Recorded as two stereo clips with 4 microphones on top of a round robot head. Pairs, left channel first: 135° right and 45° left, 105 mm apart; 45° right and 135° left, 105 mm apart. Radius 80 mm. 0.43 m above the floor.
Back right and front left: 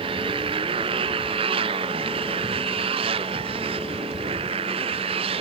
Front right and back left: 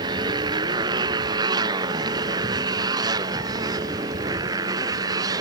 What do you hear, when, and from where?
0.0 s a motorcycle: 85° left; by 5.4 s 80° left